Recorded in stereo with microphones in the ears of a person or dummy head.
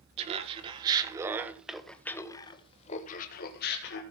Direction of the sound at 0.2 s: 35° right (ahead or behind).